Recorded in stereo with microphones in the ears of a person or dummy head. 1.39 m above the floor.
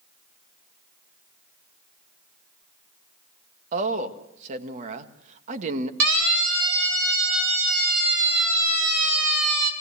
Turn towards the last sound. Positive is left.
turn(degrees=-80)